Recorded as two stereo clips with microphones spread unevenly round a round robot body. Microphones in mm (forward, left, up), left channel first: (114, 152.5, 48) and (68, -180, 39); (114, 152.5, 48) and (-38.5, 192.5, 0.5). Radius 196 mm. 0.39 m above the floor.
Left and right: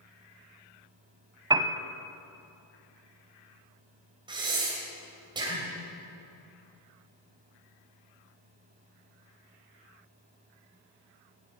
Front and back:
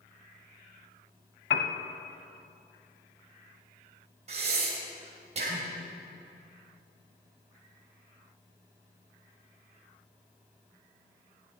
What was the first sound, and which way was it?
A piano, 20° right.